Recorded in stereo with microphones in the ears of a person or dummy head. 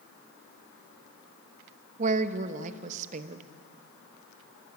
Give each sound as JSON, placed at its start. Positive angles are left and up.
{"t": 2.0, "sound": "a woman speaking", "side_deg": -40, "distance_m": 1.1}